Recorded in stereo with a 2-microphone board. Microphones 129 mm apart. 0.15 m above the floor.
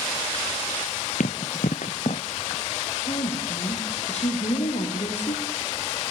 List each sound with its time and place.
1.2 s running footsteps: 75° left (ahead or behind), 0.9 m; by 2.2 s 50° left (ahead or behind), 0.7 m
3.0 s a woman speaking: 50° left (ahead or behind), 5.5 m